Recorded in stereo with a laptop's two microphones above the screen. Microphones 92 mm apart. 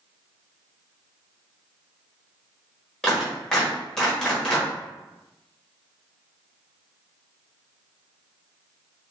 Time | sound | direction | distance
3.0 | a clap | 10° left (ahead or behind) | 1.2 m